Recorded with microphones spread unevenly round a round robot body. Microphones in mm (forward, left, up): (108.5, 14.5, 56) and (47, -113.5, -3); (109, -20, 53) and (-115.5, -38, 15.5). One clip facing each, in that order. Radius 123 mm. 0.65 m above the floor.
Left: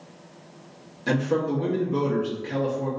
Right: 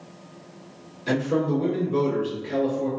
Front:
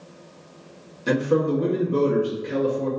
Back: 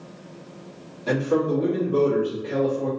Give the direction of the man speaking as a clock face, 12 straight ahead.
11 o'clock.